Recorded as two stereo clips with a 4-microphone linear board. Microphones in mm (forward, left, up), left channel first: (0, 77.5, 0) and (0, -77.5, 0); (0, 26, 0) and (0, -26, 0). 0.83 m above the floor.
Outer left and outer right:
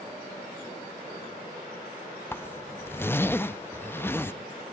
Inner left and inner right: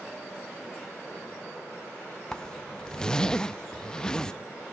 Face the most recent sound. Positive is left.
turn(degrees=15)  # may be behind; listen again after turning